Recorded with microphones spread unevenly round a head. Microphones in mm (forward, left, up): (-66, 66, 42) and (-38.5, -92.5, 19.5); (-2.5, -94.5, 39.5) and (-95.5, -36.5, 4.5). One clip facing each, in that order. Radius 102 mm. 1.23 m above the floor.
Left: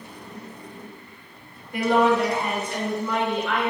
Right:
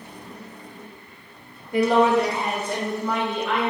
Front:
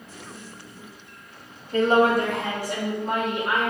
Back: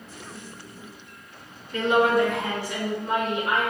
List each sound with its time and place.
1.7 s a woman speaking: 85° right, 1.0 m; by 3.7 s 70° right, 2 m